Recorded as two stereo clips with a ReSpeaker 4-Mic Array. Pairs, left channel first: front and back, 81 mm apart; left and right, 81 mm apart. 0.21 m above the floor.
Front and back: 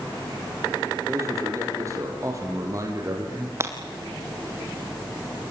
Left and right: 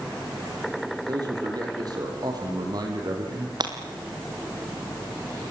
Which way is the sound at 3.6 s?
120° right.